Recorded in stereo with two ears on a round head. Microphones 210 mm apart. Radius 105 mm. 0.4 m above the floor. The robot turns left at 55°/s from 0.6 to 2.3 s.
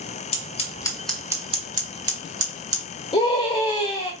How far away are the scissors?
About 1.0 m.